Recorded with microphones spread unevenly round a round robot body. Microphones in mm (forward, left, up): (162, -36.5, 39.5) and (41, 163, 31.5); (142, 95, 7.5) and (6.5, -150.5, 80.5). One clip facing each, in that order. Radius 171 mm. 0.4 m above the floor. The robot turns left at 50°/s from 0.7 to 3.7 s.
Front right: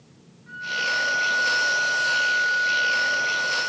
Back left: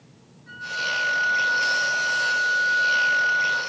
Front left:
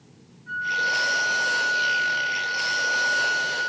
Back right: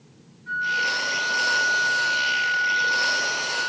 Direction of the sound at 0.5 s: 175° left.